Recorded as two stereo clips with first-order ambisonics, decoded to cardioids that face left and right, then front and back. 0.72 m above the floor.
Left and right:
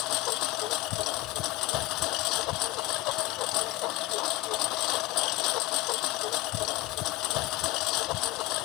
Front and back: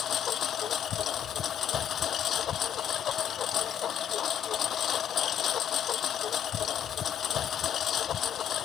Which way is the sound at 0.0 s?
60° left.